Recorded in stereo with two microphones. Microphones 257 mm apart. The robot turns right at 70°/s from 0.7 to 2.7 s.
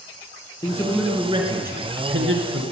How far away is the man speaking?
About 3 m.